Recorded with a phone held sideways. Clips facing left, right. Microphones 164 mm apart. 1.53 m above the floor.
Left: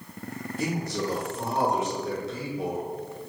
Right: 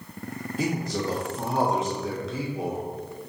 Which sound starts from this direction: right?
A man speaking, at 0.6 s.